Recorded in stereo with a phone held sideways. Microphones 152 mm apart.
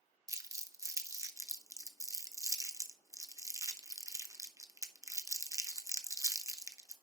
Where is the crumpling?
20° right (ahead or behind), 0.8 m.